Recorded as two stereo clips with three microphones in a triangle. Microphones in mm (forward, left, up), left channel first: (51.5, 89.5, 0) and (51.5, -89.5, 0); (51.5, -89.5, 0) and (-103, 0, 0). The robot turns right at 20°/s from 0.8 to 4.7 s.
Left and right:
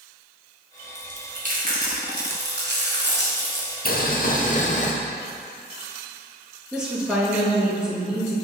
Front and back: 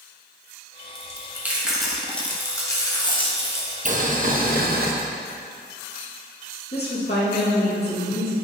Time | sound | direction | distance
0.9 | chewing | 140° right | 1.3 m
3.9 | boiling | 110° left | 0.7 m
6.7 | a woman speaking | 5° right | 2.5 m